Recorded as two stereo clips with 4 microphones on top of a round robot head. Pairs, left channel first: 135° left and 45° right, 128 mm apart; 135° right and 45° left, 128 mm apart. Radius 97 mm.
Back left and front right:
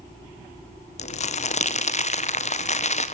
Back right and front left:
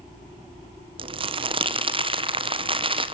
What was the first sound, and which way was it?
Crumpling, 100° left.